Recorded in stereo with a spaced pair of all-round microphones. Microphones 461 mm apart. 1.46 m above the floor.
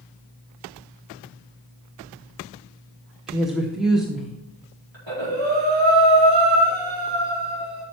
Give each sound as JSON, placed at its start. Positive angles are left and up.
{"t": 3.3, "sound": "a woman speaking", "side_deg": 0, "distance_m": 0.8}
{"t": 4.9, "sound": "breathing", "side_deg": -70, "distance_m": 4.5}